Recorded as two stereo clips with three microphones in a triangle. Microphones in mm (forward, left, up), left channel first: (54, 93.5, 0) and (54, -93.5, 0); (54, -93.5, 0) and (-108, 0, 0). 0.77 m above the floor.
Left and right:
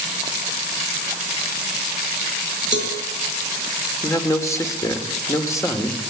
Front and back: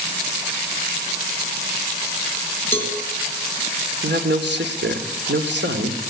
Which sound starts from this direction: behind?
A man speaking, at 4.0 s.